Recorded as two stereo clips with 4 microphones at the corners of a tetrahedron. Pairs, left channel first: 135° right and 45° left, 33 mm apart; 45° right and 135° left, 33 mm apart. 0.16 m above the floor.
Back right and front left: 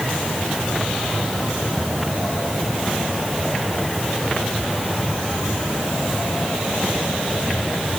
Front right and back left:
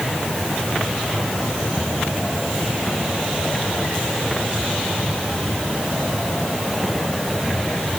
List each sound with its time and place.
Only background noise.